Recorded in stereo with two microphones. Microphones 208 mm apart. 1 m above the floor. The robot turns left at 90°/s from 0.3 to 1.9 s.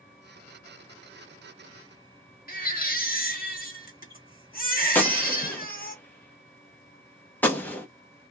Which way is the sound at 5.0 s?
10° left (ahead or behind).